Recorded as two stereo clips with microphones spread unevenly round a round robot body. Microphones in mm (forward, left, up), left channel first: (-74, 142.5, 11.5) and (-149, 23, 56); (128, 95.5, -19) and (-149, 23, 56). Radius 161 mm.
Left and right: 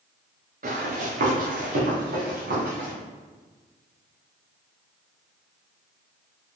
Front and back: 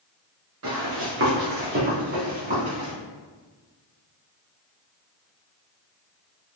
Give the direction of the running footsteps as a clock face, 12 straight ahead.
4 o'clock.